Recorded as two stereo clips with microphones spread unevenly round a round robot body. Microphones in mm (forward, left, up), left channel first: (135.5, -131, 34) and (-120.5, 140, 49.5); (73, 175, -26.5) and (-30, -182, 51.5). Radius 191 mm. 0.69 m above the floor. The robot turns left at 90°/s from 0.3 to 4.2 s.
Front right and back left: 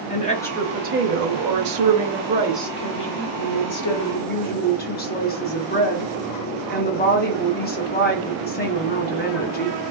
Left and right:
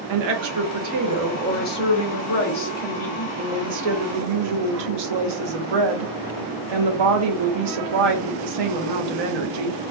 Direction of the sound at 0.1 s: 115° right.